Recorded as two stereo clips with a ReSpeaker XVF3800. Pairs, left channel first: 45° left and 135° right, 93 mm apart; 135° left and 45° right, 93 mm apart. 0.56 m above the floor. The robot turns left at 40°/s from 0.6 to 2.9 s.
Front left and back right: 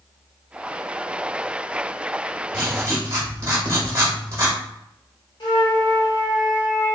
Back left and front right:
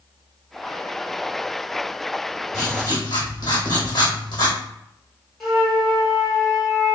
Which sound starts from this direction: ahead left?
A flute, at 5.4 s.